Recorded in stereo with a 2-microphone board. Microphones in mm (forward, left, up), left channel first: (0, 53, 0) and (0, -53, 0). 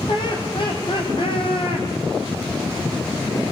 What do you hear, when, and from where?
0.1 s laughter: 50° left (ahead or behind), 5 m; by 1.9 s 55° left (ahead or behind), 5.5 m